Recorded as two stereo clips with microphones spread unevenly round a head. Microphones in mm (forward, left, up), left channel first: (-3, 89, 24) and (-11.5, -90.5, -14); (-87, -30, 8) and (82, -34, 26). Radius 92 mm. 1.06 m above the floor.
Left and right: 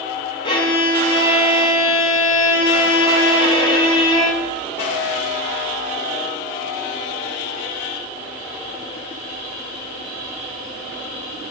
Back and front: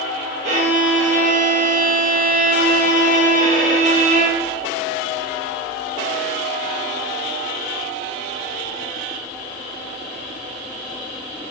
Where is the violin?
35° left, 0.7 m.